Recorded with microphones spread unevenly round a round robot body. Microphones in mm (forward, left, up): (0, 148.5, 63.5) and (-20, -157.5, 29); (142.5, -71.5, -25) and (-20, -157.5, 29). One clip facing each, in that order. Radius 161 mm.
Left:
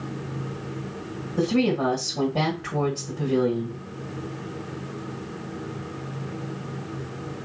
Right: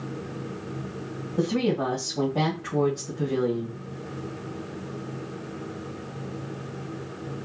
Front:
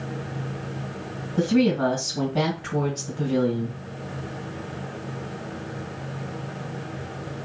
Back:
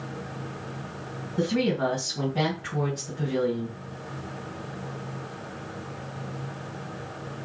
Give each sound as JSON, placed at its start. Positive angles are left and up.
{"t": 1.4, "sound": "a woman speaking", "azimuth_deg": 40, "distance_m": 2.0}